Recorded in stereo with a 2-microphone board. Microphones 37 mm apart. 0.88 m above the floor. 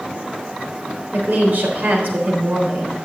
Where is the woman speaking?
60° right (ahead or behind), 3.5 m.